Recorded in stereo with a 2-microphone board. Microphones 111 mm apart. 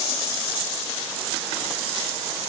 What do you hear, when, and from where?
Only background noise.